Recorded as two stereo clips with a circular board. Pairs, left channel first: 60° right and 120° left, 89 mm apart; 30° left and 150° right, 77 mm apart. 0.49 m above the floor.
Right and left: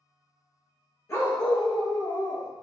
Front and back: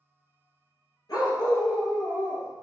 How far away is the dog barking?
About 3 m.